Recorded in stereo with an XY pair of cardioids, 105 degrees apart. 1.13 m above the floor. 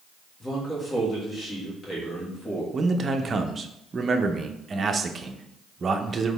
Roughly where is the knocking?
I don't hear knocking.